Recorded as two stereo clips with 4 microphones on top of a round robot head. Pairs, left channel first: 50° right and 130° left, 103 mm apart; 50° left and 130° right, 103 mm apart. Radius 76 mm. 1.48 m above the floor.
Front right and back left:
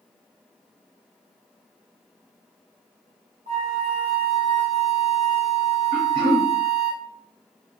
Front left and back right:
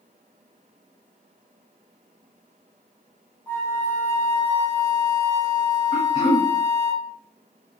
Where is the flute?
125° left, 0.9 m.